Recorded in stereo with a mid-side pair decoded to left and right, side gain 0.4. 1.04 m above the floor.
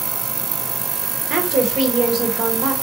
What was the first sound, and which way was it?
A woman speaking, 60° right.